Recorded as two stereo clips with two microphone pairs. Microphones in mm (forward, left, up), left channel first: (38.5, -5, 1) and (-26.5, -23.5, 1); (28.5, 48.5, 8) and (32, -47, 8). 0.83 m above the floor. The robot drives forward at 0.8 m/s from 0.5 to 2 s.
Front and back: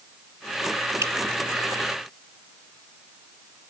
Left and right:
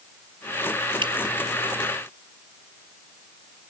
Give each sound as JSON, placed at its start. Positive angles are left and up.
{"t": 1.0, "sound": "dripping", "azimuth_deg": -120}